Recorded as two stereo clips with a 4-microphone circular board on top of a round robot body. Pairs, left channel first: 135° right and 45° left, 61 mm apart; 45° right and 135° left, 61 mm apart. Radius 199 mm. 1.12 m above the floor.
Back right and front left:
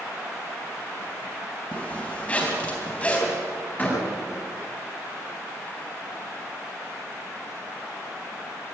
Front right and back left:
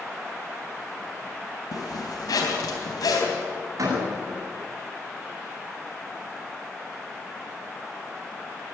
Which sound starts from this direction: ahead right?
A zipper, at 1.7 s.